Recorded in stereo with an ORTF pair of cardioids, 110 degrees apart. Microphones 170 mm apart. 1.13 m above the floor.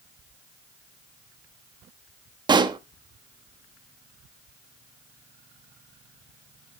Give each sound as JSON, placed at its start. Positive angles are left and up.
{"t": 2.5, "sound": "a pop", "azimuth_deg": -25, "distance_m": 1.2}